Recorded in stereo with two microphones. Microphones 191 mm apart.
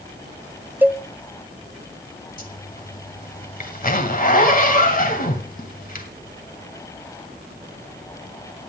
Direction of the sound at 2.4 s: 50° left (ahead or behind).